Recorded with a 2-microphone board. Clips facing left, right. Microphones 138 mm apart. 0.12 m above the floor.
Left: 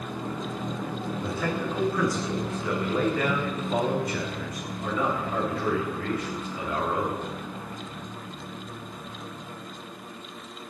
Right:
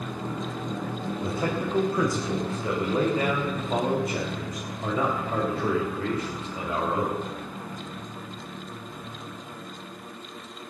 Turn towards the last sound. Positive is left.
turn(degrees=-35)  # may be behind; listen again after turning